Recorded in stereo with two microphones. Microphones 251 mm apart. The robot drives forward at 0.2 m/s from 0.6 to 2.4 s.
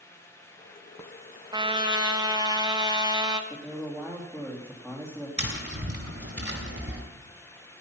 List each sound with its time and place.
1.5 s a trumpet: 20° right (ahead or behind), 1.1 m; by 3.4 s 15° right (ahead or behind), 1.3 m
3.5 s a man speaking: 10° right (ahead or behind), 2.5 m
5.4 s tapping: 70° right (ahead or behind), 3.5 m